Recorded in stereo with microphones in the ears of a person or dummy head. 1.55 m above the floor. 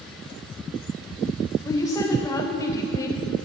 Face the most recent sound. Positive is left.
turn(degrees=15)  # may be behind; listen again after turning